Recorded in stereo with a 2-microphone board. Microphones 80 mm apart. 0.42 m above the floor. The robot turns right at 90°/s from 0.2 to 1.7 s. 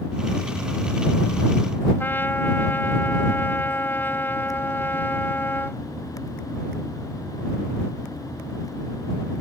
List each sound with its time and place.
2.0 s a trumpet: 25° left (ahead or behind)